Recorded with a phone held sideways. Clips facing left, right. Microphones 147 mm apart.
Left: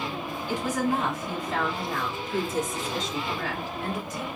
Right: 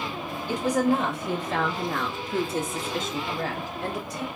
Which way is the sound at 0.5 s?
60° right (ahead or behind).